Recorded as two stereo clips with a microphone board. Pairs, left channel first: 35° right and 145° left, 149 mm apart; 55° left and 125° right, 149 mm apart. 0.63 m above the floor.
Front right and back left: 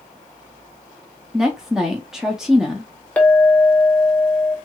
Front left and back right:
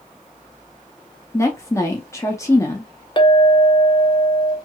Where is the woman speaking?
65° left, 0.6 m.